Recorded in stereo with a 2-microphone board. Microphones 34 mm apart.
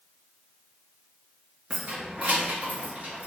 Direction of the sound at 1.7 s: 40° right (ahead or behind).